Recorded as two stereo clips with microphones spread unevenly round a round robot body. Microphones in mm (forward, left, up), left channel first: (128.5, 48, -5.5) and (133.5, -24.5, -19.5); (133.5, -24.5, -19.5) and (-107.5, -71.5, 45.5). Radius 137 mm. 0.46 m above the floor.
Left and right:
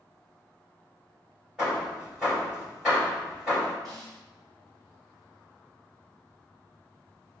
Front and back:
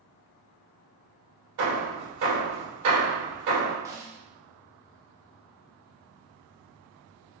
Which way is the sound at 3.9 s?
85° right.